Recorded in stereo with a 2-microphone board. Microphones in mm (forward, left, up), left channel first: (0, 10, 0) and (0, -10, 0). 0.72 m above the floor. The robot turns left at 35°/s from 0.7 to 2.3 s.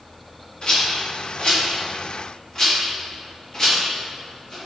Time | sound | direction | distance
0.6 | a rattle | 45° left (ahead or behind) | 1.3 m